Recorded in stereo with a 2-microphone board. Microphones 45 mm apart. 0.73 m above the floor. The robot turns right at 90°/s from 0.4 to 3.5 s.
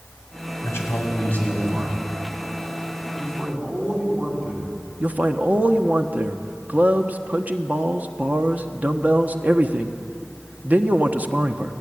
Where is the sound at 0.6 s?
85° left, 5.5 m; by 2.0 s 155° right, 5.5 m.